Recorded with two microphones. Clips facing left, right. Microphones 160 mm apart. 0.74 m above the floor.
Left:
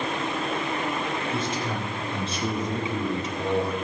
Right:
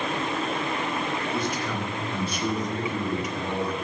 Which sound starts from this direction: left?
A man speaking, at 1.3 s.